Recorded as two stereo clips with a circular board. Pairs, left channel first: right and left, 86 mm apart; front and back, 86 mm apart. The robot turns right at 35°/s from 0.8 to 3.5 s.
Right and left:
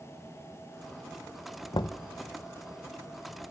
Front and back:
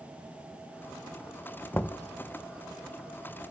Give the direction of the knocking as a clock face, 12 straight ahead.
2 o'clock.